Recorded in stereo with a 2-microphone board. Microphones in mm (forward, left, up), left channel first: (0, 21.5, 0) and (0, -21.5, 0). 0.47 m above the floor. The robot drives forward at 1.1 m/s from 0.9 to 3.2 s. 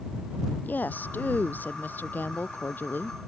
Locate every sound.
0.6 s a woman speaking: 45° left (ahead or behind); by 3.2 s 50° left (ahead or behind)